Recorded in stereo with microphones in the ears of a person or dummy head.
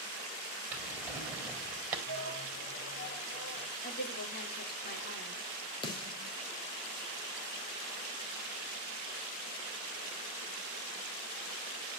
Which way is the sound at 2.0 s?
70° left (ahead or behind).